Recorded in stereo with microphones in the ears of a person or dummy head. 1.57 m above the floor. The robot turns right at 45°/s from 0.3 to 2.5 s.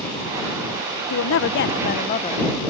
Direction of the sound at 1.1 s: 100° left.